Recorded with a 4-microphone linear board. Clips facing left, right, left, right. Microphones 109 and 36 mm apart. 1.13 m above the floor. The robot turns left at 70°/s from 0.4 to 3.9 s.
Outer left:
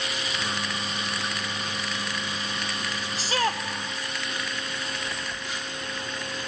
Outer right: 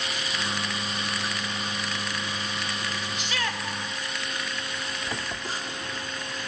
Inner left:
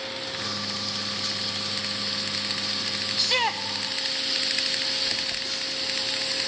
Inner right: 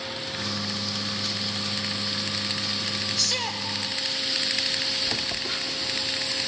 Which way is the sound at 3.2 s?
110° left.